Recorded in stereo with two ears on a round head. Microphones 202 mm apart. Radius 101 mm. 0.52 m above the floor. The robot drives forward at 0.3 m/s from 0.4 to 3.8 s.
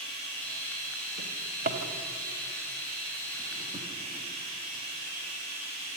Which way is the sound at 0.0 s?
80° right.